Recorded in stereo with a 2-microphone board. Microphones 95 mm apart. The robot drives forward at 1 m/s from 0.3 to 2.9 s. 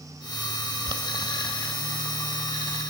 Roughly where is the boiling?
Right.